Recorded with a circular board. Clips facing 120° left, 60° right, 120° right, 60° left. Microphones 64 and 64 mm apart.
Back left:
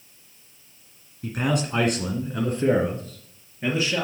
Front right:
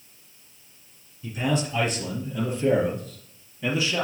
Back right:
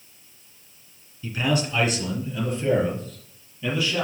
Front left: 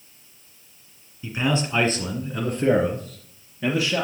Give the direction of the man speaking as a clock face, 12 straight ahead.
8 o'clock.